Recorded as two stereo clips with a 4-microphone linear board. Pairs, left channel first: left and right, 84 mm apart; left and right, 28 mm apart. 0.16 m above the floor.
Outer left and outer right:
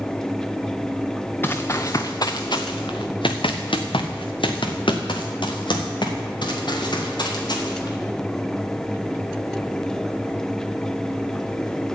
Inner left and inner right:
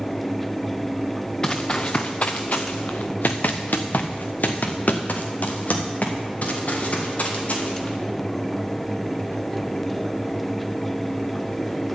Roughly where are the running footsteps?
Left.